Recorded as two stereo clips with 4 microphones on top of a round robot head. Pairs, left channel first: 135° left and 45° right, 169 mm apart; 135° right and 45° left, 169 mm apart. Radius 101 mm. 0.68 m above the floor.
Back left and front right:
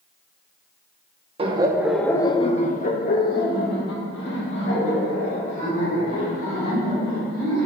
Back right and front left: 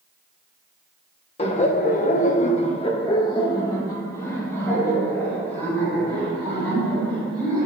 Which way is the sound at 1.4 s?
90° right.